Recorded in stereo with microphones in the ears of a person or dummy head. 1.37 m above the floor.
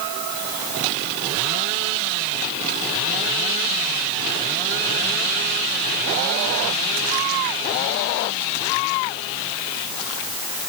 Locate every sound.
Only background noise.